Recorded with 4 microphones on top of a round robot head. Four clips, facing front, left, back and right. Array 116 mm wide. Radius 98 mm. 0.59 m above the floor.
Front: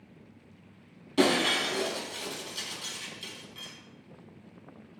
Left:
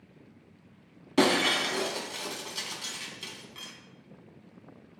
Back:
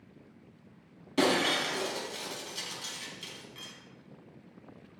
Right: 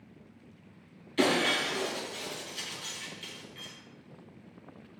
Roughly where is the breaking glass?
Left.